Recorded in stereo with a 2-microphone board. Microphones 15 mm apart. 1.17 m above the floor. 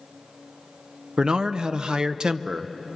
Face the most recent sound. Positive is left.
turn(degrees=-65)  # may be behind; listen again after turning